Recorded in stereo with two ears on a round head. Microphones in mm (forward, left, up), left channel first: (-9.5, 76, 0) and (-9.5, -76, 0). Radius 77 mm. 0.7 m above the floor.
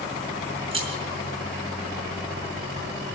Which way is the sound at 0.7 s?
30° right (ahead or behind).